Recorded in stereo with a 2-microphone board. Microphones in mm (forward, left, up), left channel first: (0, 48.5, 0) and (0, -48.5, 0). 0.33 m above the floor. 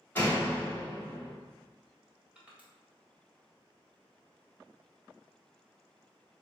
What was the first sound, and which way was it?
A door slam, 20° left (ahead or behind).